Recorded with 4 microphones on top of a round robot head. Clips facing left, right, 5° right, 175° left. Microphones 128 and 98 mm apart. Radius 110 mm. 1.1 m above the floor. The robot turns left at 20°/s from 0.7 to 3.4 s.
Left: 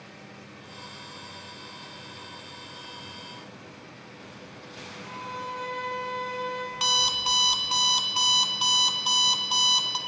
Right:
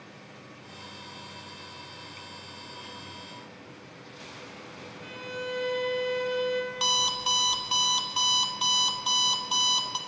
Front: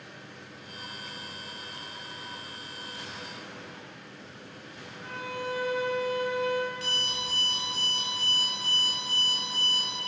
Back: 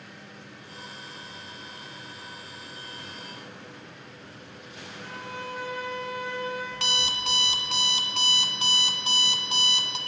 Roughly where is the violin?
Right.